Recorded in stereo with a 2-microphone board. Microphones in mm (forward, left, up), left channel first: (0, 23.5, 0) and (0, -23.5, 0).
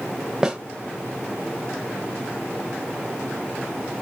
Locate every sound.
0.4 s a snare drum: 10° right (ahead or behind), 1.3 m